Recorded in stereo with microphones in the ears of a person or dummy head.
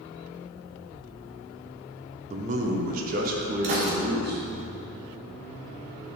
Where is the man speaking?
45° right (ahead or behind), 1.1 m; by 4.6 s 70° right (ahead or behind), 2.5 m.